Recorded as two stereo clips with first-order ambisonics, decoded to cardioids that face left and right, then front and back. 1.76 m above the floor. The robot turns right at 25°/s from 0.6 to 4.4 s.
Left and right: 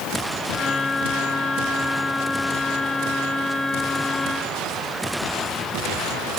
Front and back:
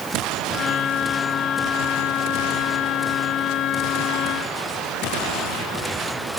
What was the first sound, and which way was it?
Only background noise.